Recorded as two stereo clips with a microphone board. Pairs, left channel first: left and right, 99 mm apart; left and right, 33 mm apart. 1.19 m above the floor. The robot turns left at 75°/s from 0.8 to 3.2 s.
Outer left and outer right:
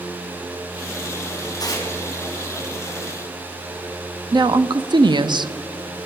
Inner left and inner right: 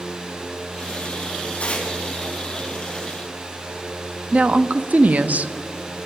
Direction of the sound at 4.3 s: 50° right (ahead or behind).